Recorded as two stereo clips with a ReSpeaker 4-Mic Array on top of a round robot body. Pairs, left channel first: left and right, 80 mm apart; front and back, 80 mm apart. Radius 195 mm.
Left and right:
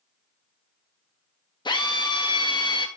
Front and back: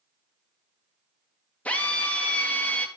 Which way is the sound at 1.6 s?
70° left.